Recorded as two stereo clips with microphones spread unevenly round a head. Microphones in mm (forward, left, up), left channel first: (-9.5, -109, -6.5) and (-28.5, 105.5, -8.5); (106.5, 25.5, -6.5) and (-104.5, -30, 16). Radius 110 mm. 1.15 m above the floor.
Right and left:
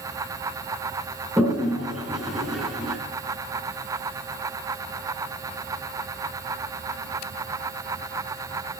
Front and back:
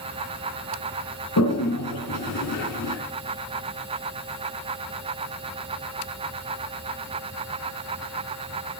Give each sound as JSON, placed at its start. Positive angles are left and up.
{"t": 1.4, "sound": "a toilet flushing", "azimuth_deg": 5, "distance_m": 3.5}